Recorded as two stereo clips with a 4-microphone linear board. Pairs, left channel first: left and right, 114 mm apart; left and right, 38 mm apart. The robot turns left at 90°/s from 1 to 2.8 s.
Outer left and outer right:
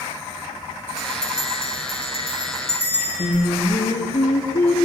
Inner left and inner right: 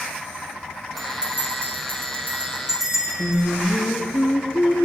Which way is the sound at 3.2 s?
70° left (ahead or behind).